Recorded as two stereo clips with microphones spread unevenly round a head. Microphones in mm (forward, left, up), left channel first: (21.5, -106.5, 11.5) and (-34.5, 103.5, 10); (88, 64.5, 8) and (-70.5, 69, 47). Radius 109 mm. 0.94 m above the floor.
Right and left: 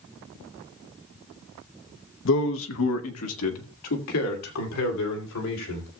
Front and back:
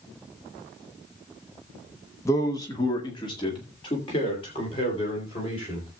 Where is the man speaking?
60° right, 0.9 m; by 5.9 s 65° right, 4 m.